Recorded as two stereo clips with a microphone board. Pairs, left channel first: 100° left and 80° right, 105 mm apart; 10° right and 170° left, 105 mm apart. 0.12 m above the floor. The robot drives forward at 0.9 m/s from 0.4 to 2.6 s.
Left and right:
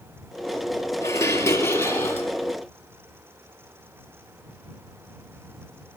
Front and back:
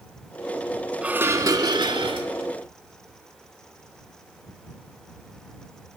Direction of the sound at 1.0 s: 100° left.